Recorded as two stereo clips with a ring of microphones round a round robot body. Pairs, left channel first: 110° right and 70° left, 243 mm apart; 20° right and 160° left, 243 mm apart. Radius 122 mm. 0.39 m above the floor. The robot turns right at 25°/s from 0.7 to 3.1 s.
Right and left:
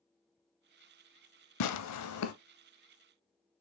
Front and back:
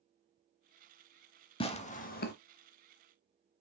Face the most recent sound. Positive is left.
turn(degrees=-55)